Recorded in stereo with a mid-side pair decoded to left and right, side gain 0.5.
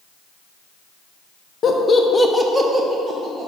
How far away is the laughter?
About 0.6 m.